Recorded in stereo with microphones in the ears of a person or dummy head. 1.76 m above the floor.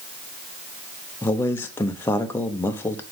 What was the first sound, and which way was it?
A man speaking, 15° left (ahead or behind).